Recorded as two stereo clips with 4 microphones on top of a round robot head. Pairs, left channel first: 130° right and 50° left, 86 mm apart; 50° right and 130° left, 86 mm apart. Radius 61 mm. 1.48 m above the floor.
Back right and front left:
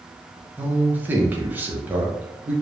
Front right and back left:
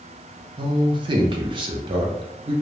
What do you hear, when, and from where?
0.6 s a man speaking: 115° left, 0.7 m